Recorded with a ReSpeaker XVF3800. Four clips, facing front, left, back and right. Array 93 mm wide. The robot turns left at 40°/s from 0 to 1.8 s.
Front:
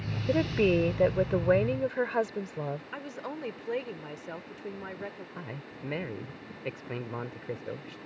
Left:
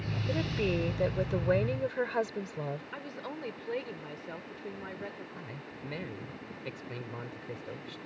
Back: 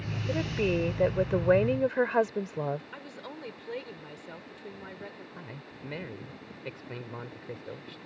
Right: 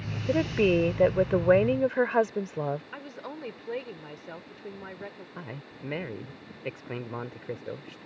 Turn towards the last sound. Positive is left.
turn(degrees=-60)